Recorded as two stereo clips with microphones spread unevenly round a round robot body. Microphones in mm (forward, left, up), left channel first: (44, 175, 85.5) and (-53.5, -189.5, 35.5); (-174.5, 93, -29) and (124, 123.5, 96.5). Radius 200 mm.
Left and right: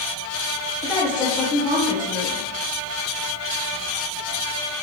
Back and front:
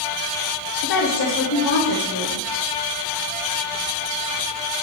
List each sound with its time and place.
0.8 s a woman speaking: 155° left, 3.5 m